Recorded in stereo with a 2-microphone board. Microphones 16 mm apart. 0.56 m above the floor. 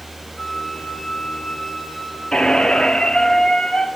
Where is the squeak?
70° left (ahead or behind), 1.4 m.